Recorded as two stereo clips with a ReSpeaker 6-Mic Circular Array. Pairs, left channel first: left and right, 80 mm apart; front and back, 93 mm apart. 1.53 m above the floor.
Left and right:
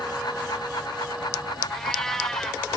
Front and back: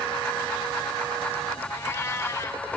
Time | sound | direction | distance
1.7 | a cat meowing | 15° left | 0.7 m